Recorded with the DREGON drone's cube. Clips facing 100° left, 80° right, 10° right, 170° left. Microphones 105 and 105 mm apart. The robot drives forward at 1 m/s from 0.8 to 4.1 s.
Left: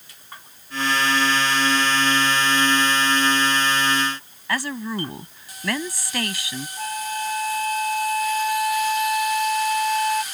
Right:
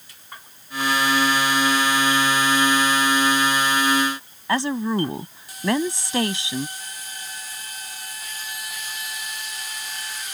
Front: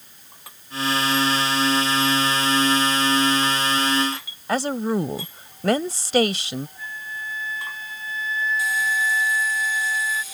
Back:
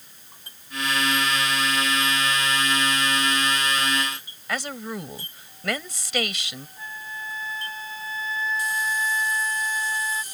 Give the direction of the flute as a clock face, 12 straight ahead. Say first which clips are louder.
Left 13 dB, front 2 dB; 8 o'clock.